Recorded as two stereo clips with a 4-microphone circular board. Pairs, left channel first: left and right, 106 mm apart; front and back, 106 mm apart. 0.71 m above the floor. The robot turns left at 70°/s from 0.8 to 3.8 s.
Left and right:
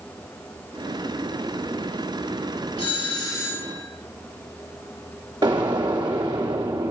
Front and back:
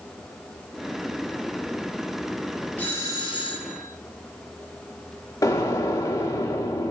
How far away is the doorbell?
About 5 m.